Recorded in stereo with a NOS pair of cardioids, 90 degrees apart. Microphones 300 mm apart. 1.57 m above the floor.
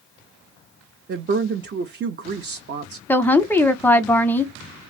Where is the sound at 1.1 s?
35° right, 0.7 m.